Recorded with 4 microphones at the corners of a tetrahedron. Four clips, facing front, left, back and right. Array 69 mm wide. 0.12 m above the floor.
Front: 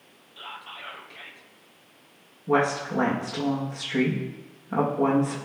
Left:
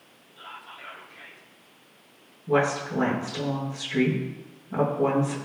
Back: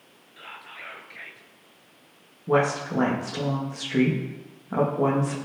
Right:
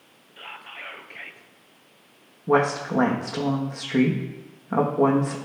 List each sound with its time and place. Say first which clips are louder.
0.4 s whispering: right 3 dB, front 1 dB; 100° right, 2 m
2.5 s a woman speaking: right 3 dB, back 1 dB; 95° right, 5.5 m